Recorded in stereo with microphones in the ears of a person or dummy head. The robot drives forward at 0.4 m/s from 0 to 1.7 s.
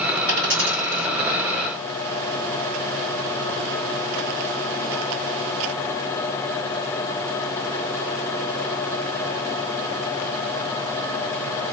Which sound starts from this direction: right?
A dropped coin, at 0.3 s.